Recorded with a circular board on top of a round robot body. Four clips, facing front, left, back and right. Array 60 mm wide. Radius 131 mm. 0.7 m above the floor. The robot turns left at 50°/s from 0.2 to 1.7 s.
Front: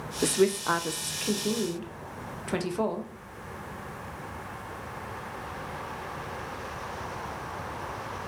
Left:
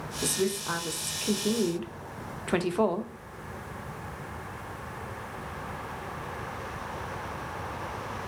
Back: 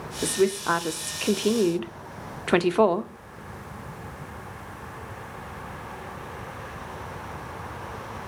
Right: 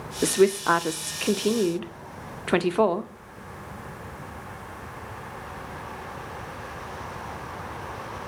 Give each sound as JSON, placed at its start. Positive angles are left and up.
{"t": 0.2, "sound": "a woman speaking", "azimuth_deg": -80, "distance_m": 0.8}